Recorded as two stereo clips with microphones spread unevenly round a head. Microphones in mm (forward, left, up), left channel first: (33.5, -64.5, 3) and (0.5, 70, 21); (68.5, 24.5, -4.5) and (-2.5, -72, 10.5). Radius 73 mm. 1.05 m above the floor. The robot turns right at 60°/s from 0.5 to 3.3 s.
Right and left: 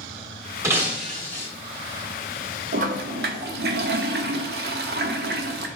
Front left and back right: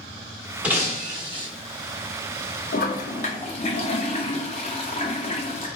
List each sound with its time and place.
0.6 s breaking glass: 165° left, 0.8 m; by 1.5 s 145° right, 0.8 m
2.7 s a toilet flushing: 75° left, 0.6 m; by 5.7 s 110° left, 0.6 m